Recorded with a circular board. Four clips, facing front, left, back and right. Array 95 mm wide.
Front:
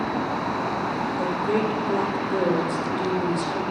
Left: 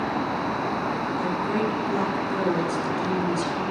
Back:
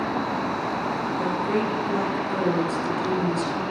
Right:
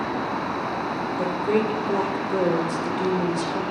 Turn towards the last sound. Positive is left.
turn(degrees=-95)